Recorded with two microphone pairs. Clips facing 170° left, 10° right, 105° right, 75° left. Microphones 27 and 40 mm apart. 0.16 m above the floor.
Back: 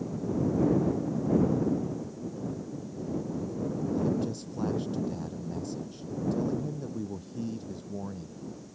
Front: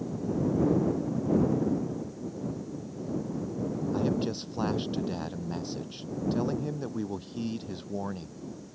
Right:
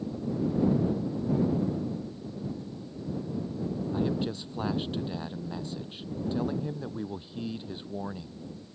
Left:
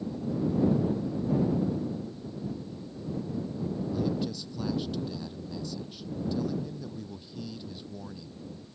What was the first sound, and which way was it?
A man speaking, 50° right.